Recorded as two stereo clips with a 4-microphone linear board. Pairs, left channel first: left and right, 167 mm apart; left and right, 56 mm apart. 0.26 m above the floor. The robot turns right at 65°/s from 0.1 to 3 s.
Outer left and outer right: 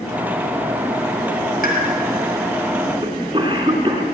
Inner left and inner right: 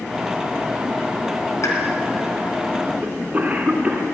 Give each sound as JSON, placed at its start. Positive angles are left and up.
{"t": 1.6, "sound": "a pop", "side_deg": 60, "distance_m": 2.5}
{"t": 3.0, "sound": "a cough", "side_deg": -30, "distance_m": 3.0}